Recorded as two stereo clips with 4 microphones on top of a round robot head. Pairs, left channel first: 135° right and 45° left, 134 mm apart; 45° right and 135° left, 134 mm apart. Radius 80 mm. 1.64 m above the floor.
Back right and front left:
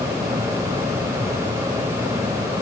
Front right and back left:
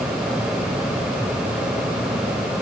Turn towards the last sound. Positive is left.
No sound to turn to.